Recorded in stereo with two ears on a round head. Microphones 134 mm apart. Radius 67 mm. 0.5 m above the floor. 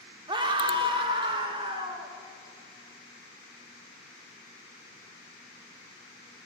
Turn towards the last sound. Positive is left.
turn(degrees=-30)  # may be behind; listen again after turning